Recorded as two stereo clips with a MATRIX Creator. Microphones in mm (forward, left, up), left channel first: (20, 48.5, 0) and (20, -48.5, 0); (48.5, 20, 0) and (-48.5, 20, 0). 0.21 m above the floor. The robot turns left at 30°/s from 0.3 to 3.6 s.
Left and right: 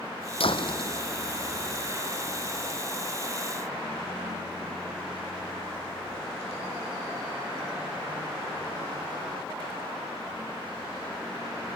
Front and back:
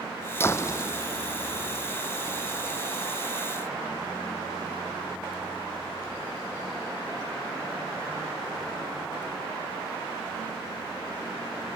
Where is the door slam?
65° left; by 1.9 s 20° left.